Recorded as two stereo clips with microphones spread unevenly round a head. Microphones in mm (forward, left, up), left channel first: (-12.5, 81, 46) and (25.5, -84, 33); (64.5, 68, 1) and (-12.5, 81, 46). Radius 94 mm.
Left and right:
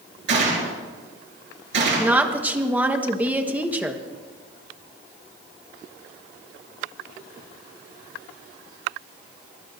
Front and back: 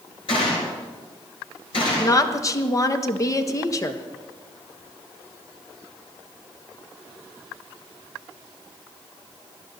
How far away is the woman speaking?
About 1.3 m.